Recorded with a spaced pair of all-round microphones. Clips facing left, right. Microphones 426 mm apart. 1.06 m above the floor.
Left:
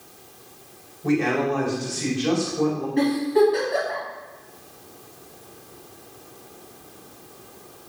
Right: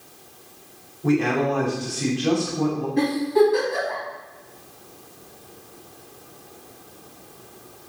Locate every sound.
1.0 s a man speaking: 75° right (ahead or behind), 3 m
3.0 s a giggle: 20° right (ahead or behind), 3.5 m